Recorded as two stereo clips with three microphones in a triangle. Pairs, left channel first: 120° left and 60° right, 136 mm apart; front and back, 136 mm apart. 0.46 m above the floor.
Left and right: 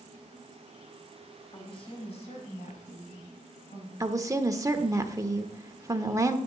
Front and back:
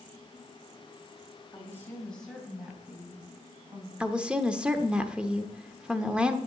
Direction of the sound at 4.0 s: 105° right.